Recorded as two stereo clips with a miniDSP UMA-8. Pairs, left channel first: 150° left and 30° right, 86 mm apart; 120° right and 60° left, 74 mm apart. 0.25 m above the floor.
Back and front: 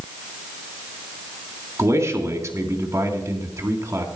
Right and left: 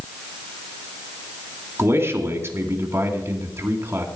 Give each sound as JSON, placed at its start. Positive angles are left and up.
{"t": 1.8, "sound": "a man speaking", "azimuth_deg": 15, "distance_m": 2.5}